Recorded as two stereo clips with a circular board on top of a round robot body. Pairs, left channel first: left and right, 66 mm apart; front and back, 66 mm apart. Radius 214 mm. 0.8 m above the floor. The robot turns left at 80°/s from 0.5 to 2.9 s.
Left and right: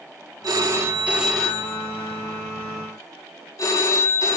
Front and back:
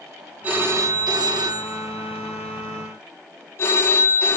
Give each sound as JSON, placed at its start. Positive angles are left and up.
{"t": 0.4, "sound": "a phone ringing", "azimuth_deg": -115, "distance_m": 0.7}